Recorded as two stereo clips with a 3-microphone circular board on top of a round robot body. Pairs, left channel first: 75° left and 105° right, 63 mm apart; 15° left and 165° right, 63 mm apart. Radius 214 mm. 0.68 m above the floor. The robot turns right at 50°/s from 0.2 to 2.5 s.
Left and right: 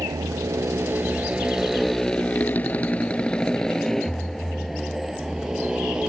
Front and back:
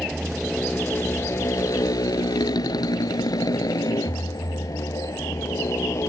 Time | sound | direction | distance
0.0 | a motorcycle | 75° right | ?